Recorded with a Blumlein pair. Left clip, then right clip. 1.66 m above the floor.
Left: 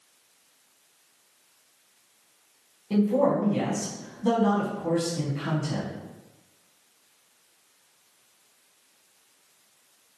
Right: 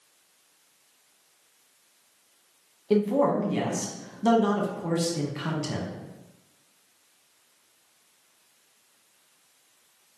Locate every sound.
2.9 s a man speaking: 25° right, 1.2 m